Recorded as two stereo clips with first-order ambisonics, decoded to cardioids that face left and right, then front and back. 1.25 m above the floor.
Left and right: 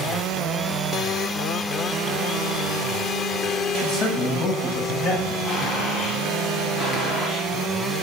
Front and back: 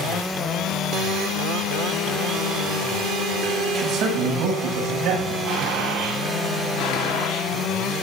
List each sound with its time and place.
3.7 s a man speaking: 135° left, 7.5 m; by 5.4 s 145° left, 7.5 m
5.5 s a gunshot: 150° left, 9 m
6.8 s a gunshot: 15° left, 3.5 m